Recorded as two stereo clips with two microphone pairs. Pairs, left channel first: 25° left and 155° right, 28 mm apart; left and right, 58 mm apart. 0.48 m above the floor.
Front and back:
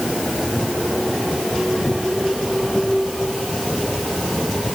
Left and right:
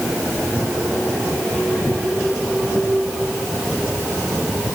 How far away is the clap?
No clap in this recording.